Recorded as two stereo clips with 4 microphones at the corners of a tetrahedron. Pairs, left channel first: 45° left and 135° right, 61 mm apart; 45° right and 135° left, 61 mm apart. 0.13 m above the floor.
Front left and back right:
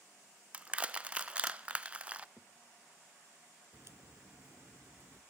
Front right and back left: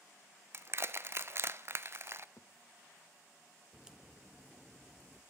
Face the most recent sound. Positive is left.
turn(degrees=-145)